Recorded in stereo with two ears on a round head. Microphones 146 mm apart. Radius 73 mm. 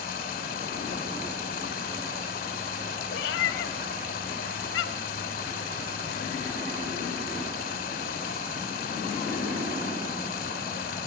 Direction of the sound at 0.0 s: 55° left (ahead or behind).